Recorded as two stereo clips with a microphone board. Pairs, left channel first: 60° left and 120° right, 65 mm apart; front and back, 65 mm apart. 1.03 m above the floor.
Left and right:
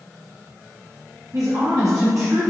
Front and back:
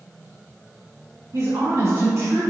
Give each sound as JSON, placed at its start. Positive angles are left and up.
{"t": 1.3, "sound": "a woman speaking", "azimuth_deg": -140, "distance_m": 1.2}